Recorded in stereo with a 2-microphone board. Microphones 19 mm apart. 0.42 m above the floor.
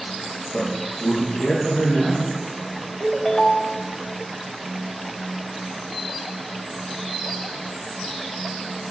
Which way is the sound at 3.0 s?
15° left (ahead or behind).